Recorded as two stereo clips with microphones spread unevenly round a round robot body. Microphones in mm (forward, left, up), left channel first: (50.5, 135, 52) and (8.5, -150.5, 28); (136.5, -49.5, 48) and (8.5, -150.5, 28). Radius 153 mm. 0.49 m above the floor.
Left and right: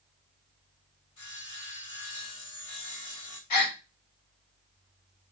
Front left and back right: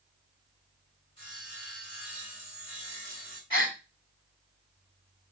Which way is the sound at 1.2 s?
105° left.